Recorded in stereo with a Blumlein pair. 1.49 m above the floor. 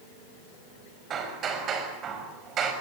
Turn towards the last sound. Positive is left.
turn(degrees=-30)